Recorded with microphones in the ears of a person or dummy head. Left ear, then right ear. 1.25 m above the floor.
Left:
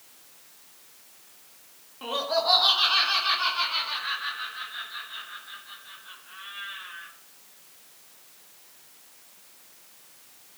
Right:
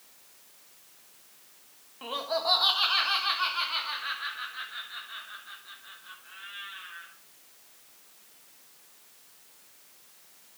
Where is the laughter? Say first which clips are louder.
Left 4 dB; 10° right (ahead or behind), 1.3 m; by 7.1 s 35° right (ahead or behind), 4.5 m.